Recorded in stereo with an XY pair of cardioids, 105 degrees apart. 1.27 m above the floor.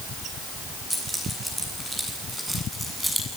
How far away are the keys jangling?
About 10 m.